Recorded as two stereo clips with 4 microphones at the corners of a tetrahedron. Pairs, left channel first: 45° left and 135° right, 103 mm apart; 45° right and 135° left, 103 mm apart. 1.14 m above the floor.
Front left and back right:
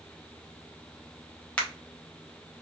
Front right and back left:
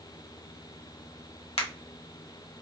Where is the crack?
35° right, 1.2 m.